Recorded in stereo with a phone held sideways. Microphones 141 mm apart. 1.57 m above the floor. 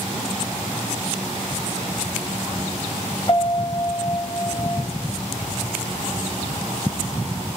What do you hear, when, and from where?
3.3 s a piano: 40° left (ahead or behind), 3 m